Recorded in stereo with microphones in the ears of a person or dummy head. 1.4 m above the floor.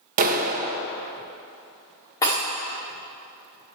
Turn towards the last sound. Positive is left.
turn(degrees=20)  # may be behind; listen again after turning